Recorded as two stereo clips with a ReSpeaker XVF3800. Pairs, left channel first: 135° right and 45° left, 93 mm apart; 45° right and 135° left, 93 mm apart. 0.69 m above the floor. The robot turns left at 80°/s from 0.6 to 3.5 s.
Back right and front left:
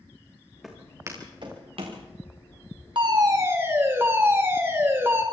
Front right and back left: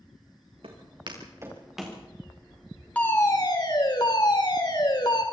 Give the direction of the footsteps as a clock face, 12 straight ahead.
8 o'clock.